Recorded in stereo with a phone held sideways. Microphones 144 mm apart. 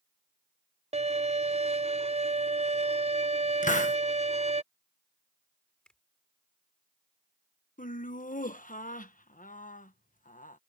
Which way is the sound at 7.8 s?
65° left (ahead or behind).